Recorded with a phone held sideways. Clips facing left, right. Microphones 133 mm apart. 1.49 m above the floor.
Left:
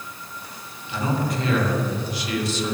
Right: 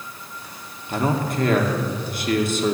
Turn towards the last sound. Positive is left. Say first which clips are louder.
# right 2 dB
turn(degrees=-50)  # may be behind; listen again after turning